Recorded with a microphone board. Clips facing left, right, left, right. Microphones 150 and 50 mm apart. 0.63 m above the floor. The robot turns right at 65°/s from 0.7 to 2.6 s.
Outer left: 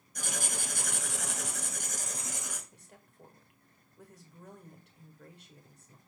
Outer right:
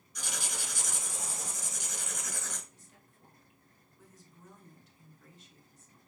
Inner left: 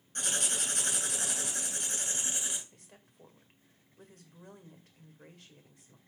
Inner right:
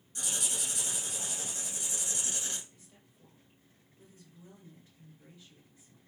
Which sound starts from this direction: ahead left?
Writing, at 0.1 s.